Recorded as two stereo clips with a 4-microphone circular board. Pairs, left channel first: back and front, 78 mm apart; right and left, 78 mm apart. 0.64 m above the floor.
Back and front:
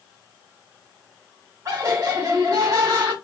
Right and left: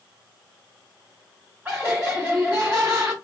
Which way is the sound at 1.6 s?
30° left.